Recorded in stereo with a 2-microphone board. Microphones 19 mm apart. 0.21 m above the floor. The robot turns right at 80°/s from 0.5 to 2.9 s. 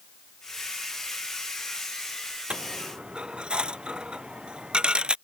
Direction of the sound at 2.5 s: 65° right (ahead or behind).